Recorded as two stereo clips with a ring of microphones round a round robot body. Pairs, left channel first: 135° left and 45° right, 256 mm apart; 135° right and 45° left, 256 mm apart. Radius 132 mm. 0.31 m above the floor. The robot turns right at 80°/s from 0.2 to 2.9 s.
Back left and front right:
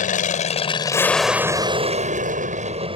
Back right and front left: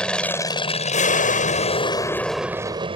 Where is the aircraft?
140° left; by 3.0 s straight ahead.